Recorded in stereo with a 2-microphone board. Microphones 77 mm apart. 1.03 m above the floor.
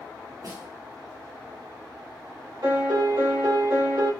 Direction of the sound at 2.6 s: 70° right (ahead or behind).